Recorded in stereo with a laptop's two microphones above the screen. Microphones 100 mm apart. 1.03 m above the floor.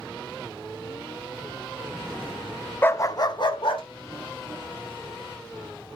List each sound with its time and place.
2.8 s a dog barking: 20° left (ahead or behind), 0.6 m; by 3.8 s 65° left (ahead or behind), 1.4 m